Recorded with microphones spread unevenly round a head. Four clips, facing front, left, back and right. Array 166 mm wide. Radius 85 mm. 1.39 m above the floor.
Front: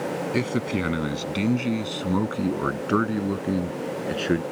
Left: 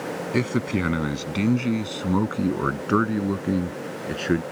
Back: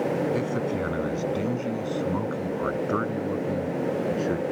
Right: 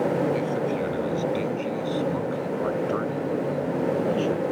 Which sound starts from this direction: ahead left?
A man speaking, at 0.3 s.